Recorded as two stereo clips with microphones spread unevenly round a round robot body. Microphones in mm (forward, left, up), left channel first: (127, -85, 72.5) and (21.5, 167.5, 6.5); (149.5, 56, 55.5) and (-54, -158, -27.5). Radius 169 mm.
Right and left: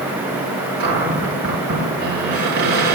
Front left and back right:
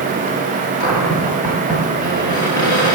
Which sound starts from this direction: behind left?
A cupboard door, at 0.8 s.